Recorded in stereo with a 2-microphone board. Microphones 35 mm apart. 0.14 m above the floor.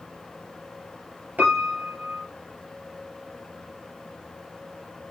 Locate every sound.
1.4 s a piano: 60° right (ahead or behind), 2.5 m